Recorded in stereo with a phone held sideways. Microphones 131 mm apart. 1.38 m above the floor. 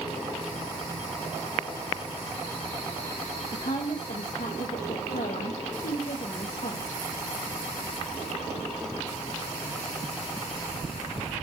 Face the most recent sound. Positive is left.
turn(degrees=90)